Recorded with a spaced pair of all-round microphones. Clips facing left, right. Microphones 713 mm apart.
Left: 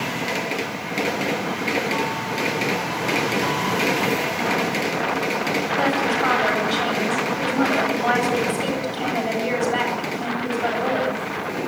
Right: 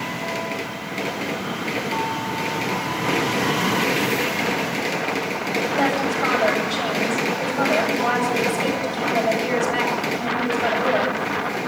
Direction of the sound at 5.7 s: 70° right (ahead or behind).